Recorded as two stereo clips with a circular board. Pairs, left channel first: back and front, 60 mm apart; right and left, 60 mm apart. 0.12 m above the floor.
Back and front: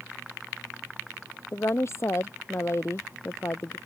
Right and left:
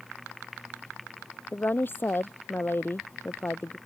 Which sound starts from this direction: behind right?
A woman speaking, at 1.5 s.